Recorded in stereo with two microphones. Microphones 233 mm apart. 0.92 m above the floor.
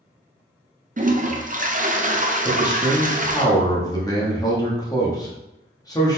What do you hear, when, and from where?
1.0 s a toilet flushing: 35° right (ahead or behind), 0.6 m
2.5 s a man speaking: 15° left (ahead or behind), 1.5 m